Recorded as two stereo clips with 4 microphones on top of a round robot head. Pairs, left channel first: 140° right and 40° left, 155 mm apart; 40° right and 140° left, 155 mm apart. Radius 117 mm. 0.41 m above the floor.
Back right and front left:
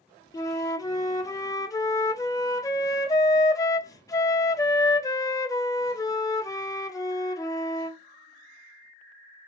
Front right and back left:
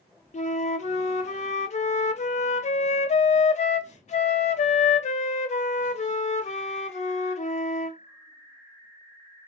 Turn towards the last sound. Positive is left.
turn(degrees=-75)